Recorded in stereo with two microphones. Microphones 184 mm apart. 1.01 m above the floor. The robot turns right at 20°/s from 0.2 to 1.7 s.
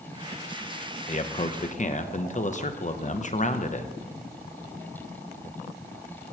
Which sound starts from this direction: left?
A man speaking, at 1.1 s.